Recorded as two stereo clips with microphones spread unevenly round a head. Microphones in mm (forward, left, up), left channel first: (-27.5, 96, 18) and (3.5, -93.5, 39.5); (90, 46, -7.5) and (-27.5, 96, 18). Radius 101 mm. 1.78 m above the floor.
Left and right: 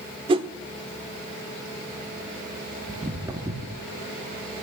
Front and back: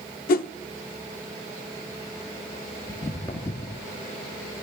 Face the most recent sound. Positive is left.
turn(degrees=-65)